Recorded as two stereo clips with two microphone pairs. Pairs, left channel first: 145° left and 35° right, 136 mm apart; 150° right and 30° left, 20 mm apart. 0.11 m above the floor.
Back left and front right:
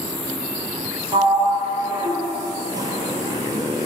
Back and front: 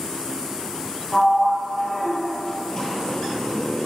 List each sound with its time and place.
1.1 s a sliding door: 95° right, 1.0 m